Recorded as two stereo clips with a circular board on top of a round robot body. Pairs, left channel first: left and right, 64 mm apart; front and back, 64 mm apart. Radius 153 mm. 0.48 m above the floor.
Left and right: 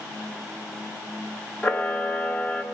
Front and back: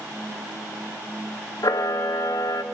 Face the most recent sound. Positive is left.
turn(degrees=20)